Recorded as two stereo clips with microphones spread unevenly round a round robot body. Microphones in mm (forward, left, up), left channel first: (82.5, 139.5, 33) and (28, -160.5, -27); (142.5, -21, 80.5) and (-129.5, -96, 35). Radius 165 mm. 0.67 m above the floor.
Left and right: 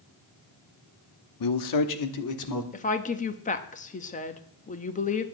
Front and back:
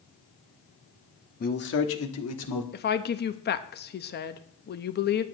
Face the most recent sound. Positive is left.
turn(degrees=20)